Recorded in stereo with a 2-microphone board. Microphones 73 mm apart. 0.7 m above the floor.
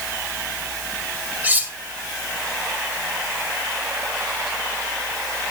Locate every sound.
1.4 s cutlery clinking: 25° right (ahead or behind), 1.7 m